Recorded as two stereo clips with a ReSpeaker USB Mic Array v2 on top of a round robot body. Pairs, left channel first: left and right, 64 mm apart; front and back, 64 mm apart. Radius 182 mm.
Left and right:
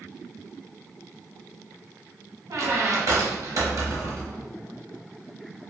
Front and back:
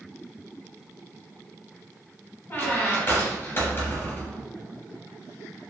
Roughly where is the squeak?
Ahead right.